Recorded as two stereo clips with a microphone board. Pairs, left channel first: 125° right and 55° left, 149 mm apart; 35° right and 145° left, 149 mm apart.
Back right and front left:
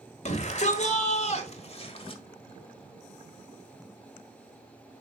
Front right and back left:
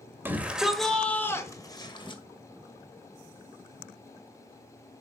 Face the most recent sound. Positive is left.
turn(degrees=-80)